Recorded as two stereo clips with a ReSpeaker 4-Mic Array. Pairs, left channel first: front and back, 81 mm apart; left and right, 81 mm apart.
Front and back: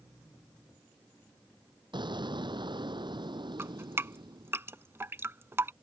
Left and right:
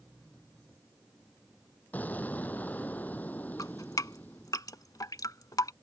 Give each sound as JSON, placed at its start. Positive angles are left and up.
{"t": 1.9, "sound": "an explosion", "azimuth_deg": 160}
{"t": 3.6, "sound": "dripping", "azimuth_deg": 125}